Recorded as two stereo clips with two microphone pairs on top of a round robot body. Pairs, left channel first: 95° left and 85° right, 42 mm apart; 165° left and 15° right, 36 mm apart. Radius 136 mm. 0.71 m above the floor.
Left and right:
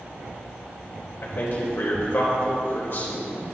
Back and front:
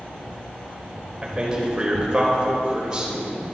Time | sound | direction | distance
1.2 | a man speaking | 55° left | 4 m